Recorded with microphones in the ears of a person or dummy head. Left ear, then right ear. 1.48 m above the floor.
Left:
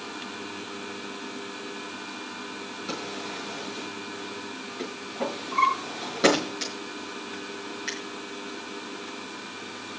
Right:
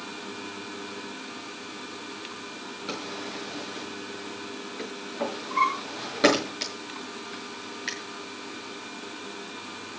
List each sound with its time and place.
2.9 s a drawer: 15° right (ahead or behind), 6.5 m